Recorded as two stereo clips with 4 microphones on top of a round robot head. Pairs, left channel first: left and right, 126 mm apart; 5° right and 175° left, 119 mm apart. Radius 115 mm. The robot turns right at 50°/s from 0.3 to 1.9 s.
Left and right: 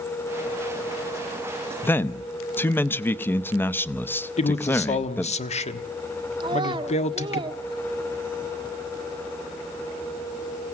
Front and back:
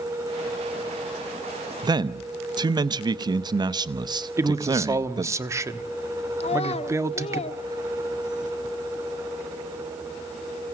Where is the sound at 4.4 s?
115° left, 1.4 m.